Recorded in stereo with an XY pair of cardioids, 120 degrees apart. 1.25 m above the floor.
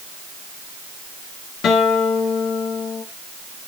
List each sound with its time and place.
1.6 s a guitar: 60° left, 2.5 m